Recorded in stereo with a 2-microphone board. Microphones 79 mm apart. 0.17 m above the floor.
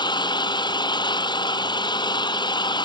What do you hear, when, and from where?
0.0 s an engine running: 70° left (ahead or behind)